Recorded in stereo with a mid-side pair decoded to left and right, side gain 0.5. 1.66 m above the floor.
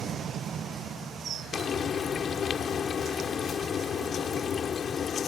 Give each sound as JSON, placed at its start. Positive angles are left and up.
{"t": 1.5, "sound": "frying", "azimuth_deg": 45}